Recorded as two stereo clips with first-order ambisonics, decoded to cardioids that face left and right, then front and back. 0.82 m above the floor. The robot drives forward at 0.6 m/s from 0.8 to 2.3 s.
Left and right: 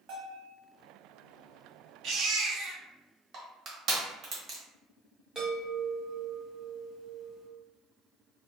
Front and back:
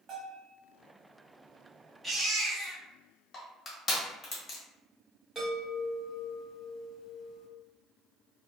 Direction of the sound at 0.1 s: 120° right.